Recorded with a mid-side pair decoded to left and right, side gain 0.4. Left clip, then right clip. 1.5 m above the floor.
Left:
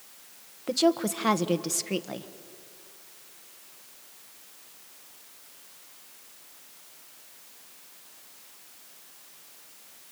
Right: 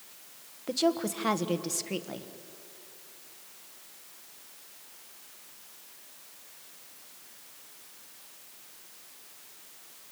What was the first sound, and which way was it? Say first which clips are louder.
A woman speaking: left 4 dB; 30° left.